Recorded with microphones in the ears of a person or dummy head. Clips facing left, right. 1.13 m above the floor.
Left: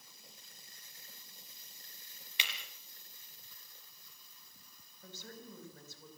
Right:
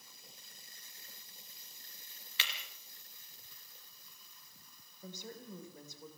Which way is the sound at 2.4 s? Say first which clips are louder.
Even; 15° left (ahead or behind).